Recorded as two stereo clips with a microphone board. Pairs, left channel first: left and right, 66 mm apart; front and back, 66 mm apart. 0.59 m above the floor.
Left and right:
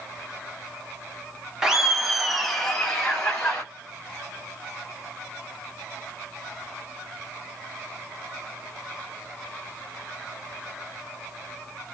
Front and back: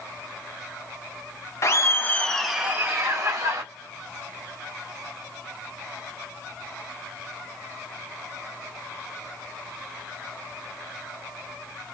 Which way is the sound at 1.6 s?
10° right.